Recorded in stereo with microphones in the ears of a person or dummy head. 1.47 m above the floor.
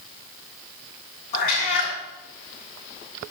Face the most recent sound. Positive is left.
turn(degrees=50)  # may be behind; listen again after turning